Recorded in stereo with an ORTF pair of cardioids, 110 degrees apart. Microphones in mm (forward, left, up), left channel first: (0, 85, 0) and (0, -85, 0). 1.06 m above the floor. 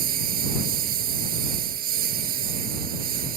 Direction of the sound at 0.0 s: 60° right.